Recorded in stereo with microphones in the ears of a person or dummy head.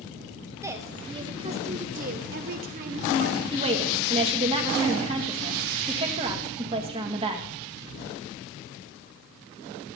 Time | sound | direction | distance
0.6 | a woman speaking | 20° right (ahead or behind) | 1.1 m
3.5 | a woman speaking | 30° right (ahead or behind) | 1.5 m